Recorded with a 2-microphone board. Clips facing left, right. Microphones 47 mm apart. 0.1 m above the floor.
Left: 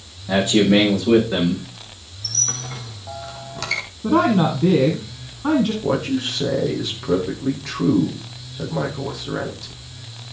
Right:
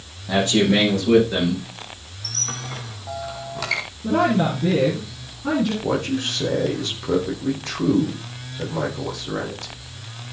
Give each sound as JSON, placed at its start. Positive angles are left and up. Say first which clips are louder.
{"t": 0.3, "sound": "a man speaking", "louder": "left 2 dB", "side_deg": 10, "distance_m": 6.0}
{"t": 2.2, "sound": "a squeak", "louder": "even", "side_deg": -5, "distance_m": 2.0}
{"t": 4.0, "sound": "a woman speaking", "louder": "left 2 dB", "side_deg": 40, "distance_m": 4.0}
{"t": 5.8, "sound": "a man speaking", "louder": "left 2 dB", "side_deg": 5, "distance_m": 4.5}